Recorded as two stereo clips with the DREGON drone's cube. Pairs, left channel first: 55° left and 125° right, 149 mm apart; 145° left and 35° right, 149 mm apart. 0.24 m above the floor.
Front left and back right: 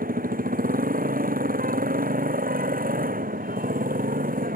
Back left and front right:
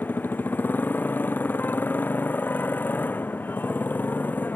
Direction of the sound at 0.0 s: 135° right.